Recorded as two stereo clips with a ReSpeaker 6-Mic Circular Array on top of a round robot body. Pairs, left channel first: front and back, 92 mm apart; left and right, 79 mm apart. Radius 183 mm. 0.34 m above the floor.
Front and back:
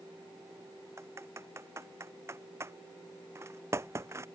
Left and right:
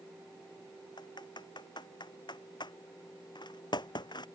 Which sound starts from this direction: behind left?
Typing on a keyboard, at 1.0 s.